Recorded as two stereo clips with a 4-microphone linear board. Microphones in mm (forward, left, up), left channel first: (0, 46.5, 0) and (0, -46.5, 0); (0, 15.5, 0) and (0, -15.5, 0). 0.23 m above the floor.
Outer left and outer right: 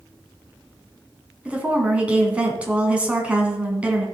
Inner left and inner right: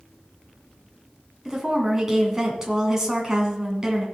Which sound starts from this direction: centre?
A woman speaking, at 1.4 s.